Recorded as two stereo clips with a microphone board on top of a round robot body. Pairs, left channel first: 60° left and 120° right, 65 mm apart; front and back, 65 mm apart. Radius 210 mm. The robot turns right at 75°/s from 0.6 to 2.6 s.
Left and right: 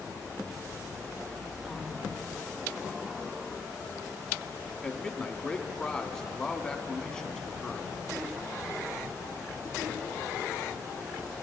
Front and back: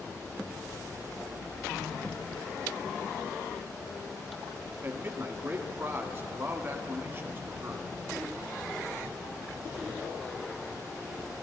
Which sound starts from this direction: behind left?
A man speaking, at 4.8 s.